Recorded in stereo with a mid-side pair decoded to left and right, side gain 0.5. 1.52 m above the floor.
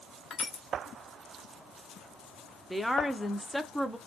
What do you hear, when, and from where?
0.3 s crushing: 45° left, 1.1 m
2.7 s a woman speaking: straight ahead, 0.5 m